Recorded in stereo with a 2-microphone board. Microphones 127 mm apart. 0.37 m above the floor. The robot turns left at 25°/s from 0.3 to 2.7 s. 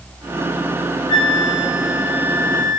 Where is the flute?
5° left, 2.5 m; by 2.8 s 35° right, 2.5 m.